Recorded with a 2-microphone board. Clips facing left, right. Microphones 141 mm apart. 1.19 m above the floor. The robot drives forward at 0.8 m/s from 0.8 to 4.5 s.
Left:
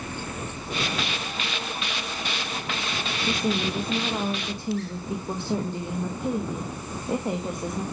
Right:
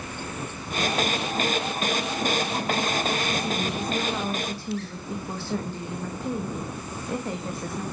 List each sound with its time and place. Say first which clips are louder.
3.3 s a woman speaking: left 2 dB; 45° left (ahead or behind), 0.7 m; by 7.8 s 20° left (ahead or behind), 1.6 m